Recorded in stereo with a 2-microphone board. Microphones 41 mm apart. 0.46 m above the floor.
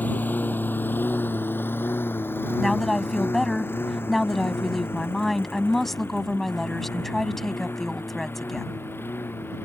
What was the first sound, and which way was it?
A lawn mower, 50° left (ahead or behind).